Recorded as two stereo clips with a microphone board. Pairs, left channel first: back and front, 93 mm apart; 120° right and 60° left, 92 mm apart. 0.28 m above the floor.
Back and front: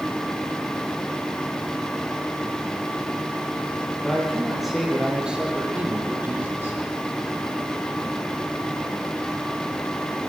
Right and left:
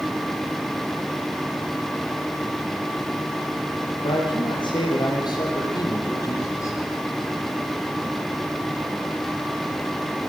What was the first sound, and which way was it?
A man speaking, 95° right.